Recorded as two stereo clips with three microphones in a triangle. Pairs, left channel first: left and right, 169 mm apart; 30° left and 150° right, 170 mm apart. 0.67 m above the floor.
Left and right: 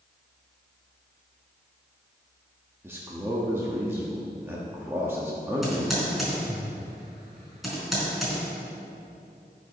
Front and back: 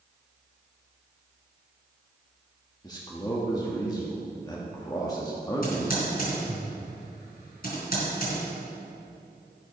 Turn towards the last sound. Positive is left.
turn(degrees=0)